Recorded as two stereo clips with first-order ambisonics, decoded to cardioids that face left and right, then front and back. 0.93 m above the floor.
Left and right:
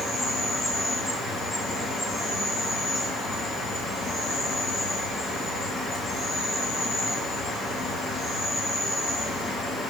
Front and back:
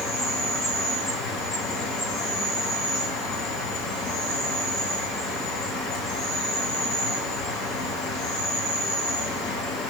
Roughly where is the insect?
Ahead.